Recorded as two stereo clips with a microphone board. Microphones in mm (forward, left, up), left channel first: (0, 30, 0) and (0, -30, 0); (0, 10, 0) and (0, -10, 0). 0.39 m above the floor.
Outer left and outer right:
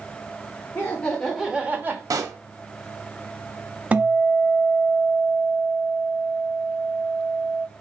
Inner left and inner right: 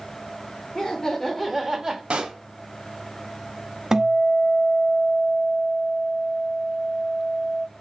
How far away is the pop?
About 0.6 m.